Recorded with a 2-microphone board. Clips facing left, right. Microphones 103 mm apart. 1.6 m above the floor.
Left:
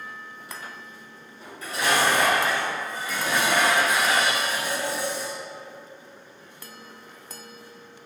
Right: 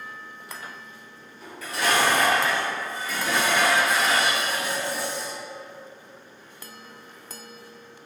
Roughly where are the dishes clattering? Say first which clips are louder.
Right 1 dB; left.